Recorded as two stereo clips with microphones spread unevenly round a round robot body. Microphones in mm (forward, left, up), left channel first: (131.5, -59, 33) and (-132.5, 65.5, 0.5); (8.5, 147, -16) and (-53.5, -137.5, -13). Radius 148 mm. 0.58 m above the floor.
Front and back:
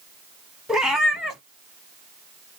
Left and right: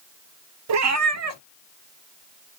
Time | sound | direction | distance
0.7 | a cat meowing | 110° right | 0.6 m